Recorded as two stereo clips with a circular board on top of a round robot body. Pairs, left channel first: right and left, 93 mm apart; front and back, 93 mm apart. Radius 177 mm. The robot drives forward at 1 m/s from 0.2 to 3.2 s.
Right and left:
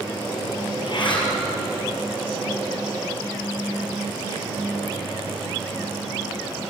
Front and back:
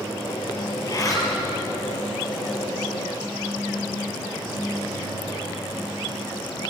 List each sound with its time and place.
0.8 s a zipper: 50° right, 4 m; by 1.3 s 55° right, 4 m